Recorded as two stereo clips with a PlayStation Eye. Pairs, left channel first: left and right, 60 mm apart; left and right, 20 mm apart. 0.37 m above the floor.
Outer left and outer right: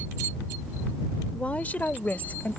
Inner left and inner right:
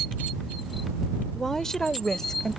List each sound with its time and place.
1.3 s a woman speaking: 20° left (ahead or behind); by 2.6 s 25° left (ahead or behind)